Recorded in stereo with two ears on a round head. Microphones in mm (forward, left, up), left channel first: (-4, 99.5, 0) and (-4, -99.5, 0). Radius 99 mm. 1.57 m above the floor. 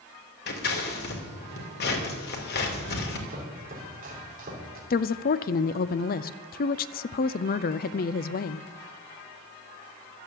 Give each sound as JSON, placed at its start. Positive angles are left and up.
{"t": 0.5, "sound": "scissors", "side_deg": 50, "distance_m": 2.5}
{"t": 3.3, "sound": "chopping", "side_deg": -40, "distance_m": 4.0}
{"t": 4.9, "sound": "a woman speaking", "side_deg": 40, "distance_m": 0.5}